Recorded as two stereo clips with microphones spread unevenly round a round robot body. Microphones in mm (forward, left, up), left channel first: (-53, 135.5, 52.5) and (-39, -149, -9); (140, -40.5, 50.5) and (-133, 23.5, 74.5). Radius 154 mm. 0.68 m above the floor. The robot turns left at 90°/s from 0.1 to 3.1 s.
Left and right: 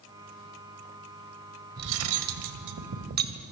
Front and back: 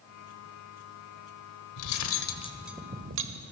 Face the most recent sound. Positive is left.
turn(degrees=-145)